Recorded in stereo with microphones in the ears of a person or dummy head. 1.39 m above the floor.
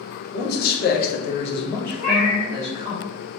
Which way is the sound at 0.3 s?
60° left (ahead or behind).